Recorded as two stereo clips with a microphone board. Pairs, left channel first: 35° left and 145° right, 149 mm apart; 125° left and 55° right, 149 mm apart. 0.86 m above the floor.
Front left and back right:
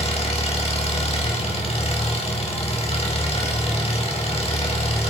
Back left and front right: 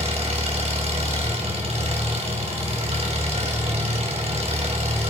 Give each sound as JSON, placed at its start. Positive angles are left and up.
{"t": 0.0, "sound": "an engine running", "azimuth_deg": -10, "distance_m": 4.0}